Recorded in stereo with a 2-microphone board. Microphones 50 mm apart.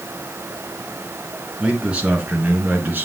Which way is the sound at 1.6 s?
25° right (ahead or behind).